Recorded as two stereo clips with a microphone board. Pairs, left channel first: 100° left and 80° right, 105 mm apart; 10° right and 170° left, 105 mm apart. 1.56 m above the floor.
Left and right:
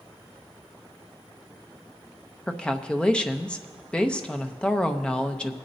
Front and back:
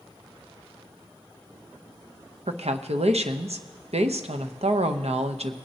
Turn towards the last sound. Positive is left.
turn(degrees=180)